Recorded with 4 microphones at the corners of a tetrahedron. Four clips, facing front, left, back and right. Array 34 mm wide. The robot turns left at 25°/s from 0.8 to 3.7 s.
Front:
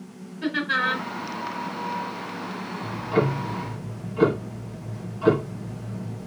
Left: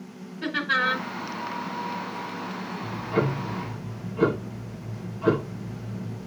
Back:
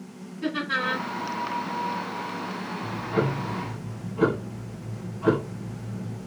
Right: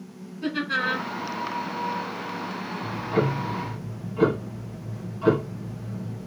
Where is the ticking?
Straight ahead, 4 m; by 6.3 s 25° right, 4 m.